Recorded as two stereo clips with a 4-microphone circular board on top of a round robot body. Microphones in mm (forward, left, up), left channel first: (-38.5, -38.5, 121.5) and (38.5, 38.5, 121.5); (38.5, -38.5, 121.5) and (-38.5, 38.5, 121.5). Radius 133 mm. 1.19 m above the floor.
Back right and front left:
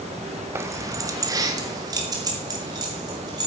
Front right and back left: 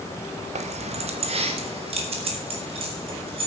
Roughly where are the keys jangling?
Behind left.